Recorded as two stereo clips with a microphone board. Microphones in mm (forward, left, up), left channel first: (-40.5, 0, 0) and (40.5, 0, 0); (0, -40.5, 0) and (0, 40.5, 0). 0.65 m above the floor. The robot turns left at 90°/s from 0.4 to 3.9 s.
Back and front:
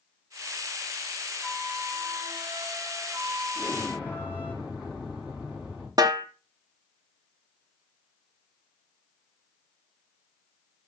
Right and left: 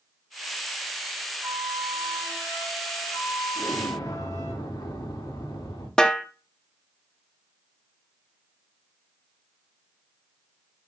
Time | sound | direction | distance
1.4 | a flute | 100° left | 1.0 m
3.5 | an explosion | 65° right | 6 m
6.0 | a snare drum | 10° right | 0.8 m